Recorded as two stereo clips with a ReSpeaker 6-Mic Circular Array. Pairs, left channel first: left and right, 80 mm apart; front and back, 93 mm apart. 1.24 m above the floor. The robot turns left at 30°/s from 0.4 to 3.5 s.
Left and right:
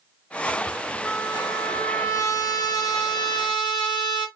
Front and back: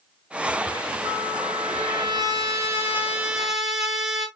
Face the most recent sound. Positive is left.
turn(degrees=95)